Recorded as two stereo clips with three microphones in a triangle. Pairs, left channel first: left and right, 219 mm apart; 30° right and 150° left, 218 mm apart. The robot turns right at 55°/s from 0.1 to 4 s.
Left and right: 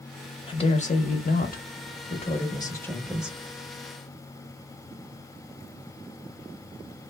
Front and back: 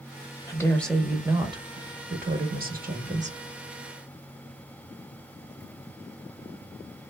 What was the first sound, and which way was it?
A woman speaking, 35° left.